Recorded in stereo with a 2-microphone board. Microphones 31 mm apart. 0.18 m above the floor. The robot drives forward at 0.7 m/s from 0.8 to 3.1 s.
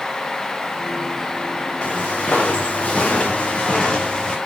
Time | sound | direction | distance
1.8 | footsteps | 40° left (ahead or behind) | 5 m